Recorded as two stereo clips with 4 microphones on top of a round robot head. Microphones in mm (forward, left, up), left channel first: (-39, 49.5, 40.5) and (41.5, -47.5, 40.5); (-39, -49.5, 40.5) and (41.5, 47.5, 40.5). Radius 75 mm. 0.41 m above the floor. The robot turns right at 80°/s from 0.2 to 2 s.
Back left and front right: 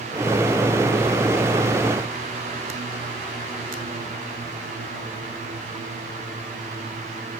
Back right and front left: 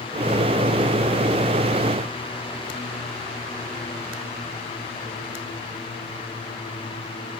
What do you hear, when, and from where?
Only background noise.